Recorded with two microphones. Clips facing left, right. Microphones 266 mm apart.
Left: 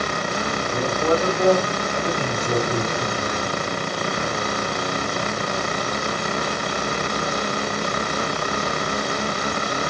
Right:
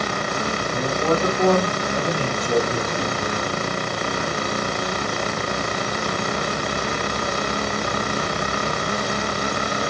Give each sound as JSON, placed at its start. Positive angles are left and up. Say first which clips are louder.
{"t": 0.7, "sound": "a man speaking", "louder": "left 1 dB", "side_deg": 30, "distance_m": 1.2}